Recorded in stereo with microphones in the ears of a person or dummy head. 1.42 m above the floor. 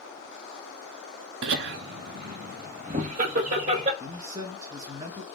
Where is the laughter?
70° right (ahead or behind), 0.5 m; by 3.9 s 40° right (ahead or behind), 2 m.